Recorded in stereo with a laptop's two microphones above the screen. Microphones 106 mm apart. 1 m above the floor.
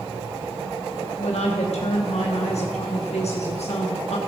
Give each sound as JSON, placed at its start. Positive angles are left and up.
{"t": 1.2, "sound": "a woman speaking", "side_deg": 80, "distance_m": 1.3}